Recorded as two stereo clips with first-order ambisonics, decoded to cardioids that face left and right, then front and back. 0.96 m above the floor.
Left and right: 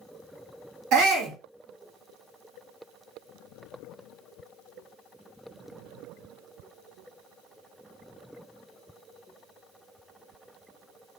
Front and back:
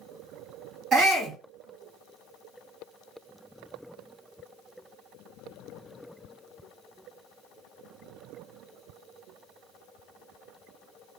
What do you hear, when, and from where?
0.9 s a shout: 120° right, 1.4 m